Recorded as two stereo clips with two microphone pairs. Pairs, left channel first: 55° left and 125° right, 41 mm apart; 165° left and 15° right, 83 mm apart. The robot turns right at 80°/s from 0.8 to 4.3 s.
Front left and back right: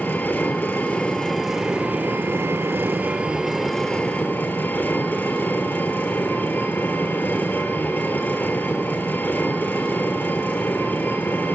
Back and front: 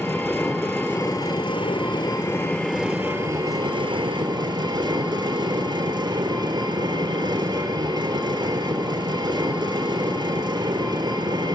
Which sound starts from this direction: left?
An engine running, at 0.0 s.